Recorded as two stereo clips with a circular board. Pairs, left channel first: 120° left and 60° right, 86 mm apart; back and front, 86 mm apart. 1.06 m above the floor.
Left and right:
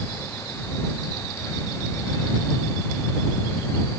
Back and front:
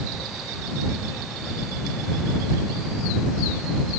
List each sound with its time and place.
Only background noise.